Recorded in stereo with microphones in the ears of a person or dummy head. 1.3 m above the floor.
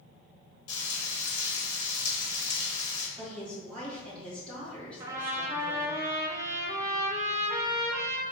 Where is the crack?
I don't hear a crack.